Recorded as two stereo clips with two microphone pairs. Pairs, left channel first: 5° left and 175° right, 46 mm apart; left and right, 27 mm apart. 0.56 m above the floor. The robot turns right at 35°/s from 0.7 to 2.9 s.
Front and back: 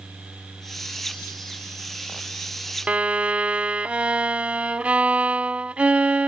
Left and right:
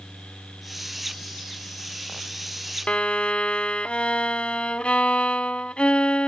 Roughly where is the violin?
Behind left.